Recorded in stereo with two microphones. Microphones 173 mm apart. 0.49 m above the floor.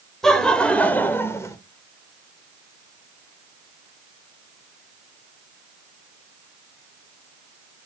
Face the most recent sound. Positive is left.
turn(degrees=20)  # may be behind; listen again after turning